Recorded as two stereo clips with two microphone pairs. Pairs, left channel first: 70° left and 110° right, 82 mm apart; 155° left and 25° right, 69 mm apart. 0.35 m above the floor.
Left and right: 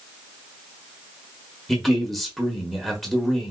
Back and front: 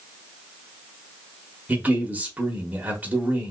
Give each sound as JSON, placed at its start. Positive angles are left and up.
{"t": 1.7, "sound": "a man speaking", "azimuth_deg": -20, "distance_m": 0.9}